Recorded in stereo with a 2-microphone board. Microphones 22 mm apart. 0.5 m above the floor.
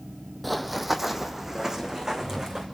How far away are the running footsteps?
About 0.9 m.